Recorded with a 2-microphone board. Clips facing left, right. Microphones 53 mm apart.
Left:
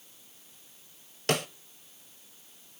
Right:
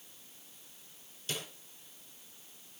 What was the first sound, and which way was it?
A snare drum, 70° left (ahead or behind).